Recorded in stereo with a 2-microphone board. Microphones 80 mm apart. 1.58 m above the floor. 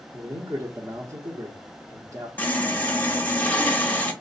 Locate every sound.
0.1 s a man speaking: 40° right (ahead or behind), 0.7 m
2.4 s sawing: 20° left (ahead or behind), 0.9 m